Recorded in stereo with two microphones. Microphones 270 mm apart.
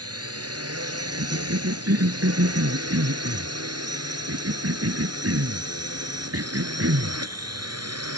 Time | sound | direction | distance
0.0 | a drone | 60° right (ahead or behind) | ?
1.2 | a cough | 60° right (ahead or behind) | ?